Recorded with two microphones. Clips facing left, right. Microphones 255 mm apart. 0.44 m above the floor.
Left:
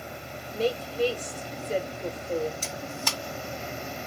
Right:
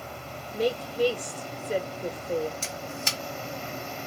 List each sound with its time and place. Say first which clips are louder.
0.5 s a woman speaking: right 1 dB; 15° right (ahead or behind), 1.1 m
2.6 s a camera shutter: left 1 dB; 25° right (ahead or behind), 1.6 m